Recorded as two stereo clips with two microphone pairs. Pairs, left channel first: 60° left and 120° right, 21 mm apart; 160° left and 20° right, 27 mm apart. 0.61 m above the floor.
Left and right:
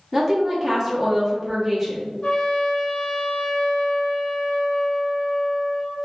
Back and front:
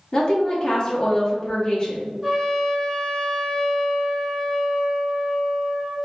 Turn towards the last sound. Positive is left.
turn(degrees=65)